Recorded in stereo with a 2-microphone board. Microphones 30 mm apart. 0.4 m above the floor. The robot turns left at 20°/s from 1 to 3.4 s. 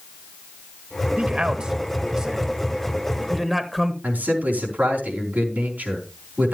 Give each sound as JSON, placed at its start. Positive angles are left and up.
{"t": 1.2, "sound": "a man speaking", "side_deg": -35, "distance_m": 1.5}
{"t": 4.0, "sound": "a man speaking", "side_deg": -70, "distance_m": 4.0}